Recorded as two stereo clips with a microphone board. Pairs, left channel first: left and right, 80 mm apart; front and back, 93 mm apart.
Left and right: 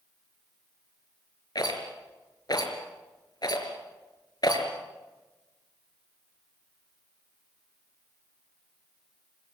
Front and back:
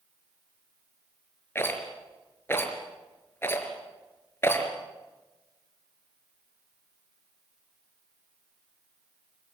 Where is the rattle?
65° left, 4 m.